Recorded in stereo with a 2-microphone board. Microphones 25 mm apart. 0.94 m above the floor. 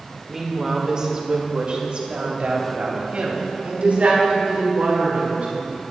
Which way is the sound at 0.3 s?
10° right (ahead or behind).